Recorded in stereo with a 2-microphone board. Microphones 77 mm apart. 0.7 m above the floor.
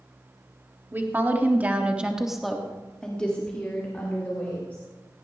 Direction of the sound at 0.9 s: 25° right (ahead or behind).